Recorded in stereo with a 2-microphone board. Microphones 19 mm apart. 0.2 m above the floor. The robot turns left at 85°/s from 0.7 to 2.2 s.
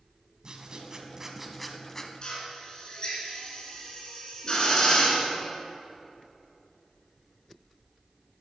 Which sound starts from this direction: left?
A drill, at 2.2 s.